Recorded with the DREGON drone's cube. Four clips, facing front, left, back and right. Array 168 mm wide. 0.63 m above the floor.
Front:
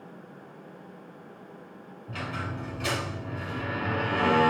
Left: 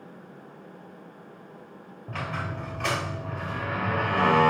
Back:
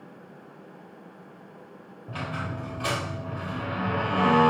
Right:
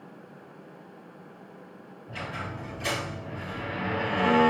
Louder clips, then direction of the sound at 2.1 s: Left 3 dB, back 2 dB; 110° left.